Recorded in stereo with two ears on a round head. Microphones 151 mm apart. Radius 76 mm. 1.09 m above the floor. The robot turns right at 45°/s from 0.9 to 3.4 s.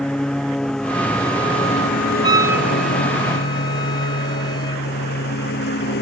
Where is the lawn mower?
5° left (ahead or behind); by 6.0 s 75° left (ahead or behind).